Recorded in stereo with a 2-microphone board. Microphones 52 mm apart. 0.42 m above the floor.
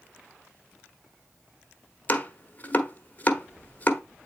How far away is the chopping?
About 1.2 m.